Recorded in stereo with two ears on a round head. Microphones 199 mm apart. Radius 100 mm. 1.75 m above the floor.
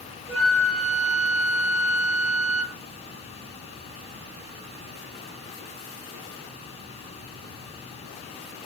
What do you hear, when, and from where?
0.3 s a flute: 30° right (ahead or behind), 2.5 m